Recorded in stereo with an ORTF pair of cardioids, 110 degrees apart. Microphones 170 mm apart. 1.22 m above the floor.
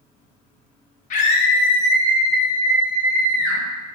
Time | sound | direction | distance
1.1 | a scream | 50° left | 0.6 m